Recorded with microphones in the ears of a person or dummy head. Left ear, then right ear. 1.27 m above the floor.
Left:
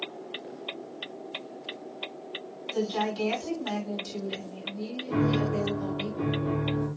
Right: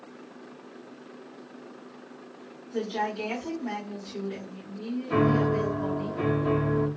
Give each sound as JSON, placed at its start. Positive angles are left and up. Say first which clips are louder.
{"t": 2.7, "sound": "a woman speaking", "louder": "even", "side_deg": 75, "distance_m": 1.8}
{"t": 5.1, "sound": "a piano", "louder": "right 4 dB", "side_deg": -30, "distance_m": 0.5}